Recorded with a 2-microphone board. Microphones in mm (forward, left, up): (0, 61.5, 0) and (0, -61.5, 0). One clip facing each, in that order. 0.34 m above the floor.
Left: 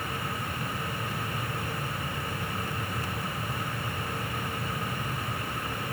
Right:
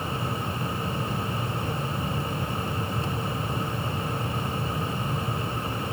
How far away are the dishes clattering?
I don't hear dishes clattering.